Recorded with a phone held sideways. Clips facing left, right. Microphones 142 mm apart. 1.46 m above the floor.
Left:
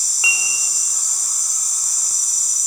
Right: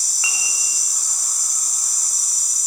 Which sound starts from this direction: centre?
Dishes clattering, at 0.2 s.